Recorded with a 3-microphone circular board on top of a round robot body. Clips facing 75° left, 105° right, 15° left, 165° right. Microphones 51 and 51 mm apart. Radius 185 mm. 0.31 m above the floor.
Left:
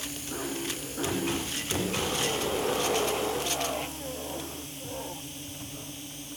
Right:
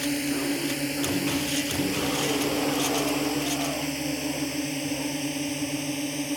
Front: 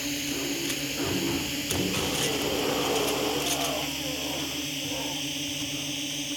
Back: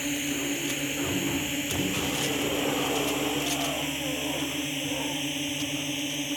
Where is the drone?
90° right; by 6.4 s 100° right.